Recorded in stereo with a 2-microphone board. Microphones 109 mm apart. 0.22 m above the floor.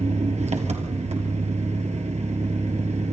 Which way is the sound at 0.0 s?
75° right (ahead or behind).